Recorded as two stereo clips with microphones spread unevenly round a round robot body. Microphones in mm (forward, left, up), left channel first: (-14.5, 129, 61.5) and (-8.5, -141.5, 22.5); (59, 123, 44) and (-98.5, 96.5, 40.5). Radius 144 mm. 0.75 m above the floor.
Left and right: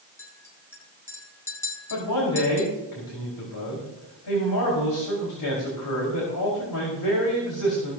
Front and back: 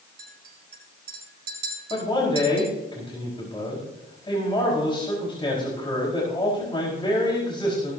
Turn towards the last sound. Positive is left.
turn(degrees=70)